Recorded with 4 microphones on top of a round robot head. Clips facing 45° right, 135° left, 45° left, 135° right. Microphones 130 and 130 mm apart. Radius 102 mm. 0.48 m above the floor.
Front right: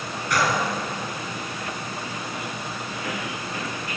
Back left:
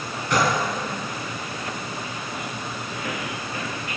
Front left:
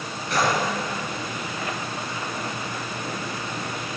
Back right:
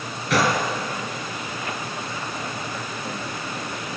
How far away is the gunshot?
About 3 m.